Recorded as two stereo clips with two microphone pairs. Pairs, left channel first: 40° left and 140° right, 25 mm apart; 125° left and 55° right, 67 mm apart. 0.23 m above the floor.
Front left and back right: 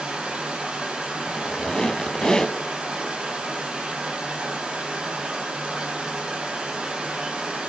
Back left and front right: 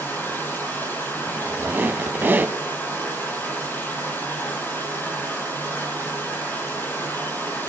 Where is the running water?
175° right, 7 m.